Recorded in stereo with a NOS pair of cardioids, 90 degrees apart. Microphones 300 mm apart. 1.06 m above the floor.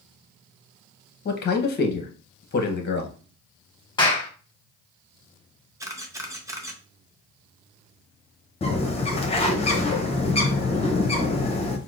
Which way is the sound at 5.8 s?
10° right.